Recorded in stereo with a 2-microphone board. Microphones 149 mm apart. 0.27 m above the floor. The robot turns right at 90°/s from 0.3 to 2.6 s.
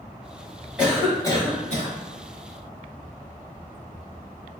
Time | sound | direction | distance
0.8 | a cough | 10° right | 1.6 m